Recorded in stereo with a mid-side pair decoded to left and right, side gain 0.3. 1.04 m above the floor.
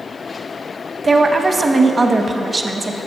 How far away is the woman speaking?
About 0.9 m.